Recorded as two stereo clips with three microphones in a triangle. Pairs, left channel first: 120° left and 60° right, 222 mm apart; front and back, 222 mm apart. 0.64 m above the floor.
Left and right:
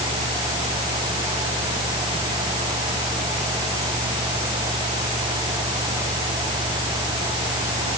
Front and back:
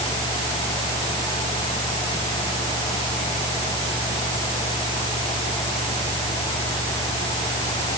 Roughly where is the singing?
I don't hear singing.